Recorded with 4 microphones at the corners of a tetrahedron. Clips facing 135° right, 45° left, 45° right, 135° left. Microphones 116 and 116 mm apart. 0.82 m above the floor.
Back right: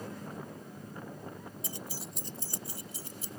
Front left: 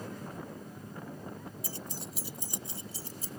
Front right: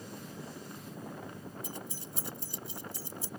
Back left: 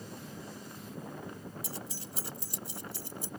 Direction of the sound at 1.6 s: 155° left.